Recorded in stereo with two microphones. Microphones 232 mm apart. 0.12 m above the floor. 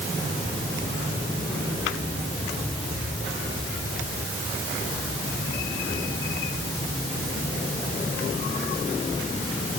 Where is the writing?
I don't hear writing.